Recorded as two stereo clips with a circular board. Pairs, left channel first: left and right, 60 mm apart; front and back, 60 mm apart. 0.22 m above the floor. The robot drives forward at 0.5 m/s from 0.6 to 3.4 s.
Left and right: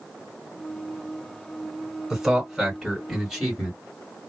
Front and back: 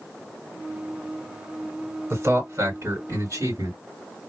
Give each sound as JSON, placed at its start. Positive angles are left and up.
{"t": 2.1, "sound": "a man speaking", "azimuth_deg": -175, "distance_m": 2.0}